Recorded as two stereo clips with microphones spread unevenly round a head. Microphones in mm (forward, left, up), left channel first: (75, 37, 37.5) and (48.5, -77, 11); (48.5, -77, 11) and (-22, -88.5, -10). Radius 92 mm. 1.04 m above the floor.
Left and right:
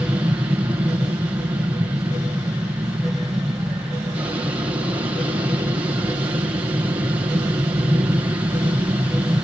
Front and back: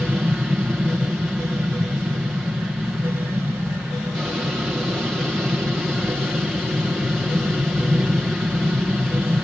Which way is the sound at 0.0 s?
105° right.